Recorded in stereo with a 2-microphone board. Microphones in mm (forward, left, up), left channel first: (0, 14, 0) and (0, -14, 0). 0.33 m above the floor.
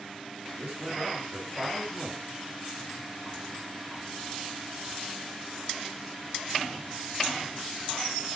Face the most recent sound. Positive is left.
turn(degrees=-45)  # may be behind; listen again after turning